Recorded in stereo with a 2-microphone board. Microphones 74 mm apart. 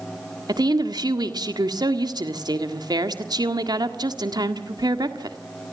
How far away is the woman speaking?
About 1.7 m.